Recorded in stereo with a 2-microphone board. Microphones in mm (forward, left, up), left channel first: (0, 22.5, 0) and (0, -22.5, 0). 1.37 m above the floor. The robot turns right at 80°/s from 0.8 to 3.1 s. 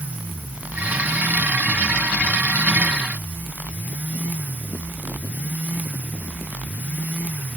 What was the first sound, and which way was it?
Only background noise.